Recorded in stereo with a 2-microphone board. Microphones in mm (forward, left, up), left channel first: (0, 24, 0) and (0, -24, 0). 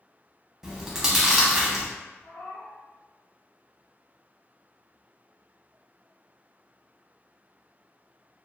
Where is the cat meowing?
65° left (ahead or behind), 1.5 m.